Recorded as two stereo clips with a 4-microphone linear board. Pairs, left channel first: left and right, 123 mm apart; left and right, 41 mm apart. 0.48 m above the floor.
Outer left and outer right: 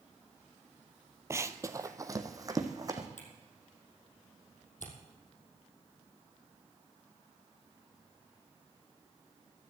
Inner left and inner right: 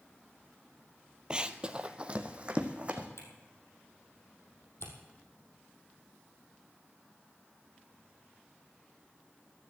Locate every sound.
1.3 s running footsteps: 20° right (ahead or behind), 0.7 m; by 3.1 s 25° right (ahead or behind), 2.0 m
3.2 s a camera shutter: 85° left, 3.5 m